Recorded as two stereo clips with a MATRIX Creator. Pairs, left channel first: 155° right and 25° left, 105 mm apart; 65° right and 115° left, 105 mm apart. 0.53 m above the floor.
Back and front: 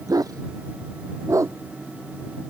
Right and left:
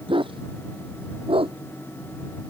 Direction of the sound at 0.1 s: 75° left.